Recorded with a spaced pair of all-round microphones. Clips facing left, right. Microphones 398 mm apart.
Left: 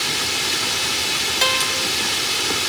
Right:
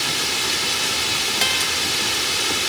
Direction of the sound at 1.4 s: 45° right (ahead or behind).